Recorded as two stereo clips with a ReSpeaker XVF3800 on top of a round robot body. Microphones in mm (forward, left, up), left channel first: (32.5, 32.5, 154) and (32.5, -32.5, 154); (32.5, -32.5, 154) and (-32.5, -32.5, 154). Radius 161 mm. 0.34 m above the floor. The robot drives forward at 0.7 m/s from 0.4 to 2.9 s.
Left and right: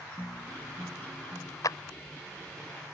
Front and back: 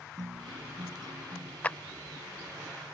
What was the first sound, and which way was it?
A guitar, 155° left.